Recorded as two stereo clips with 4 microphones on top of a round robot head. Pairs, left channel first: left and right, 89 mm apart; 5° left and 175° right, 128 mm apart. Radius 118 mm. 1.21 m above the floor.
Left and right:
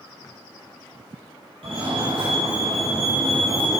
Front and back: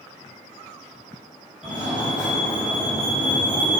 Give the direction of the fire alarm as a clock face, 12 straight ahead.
3 o'clock.